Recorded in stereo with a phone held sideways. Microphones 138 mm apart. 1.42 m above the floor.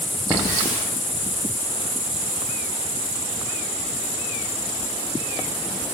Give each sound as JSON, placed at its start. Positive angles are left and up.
{"t": 0.3, "sound": "a hiss", "side_deg": -15, "distance_m": 8.0}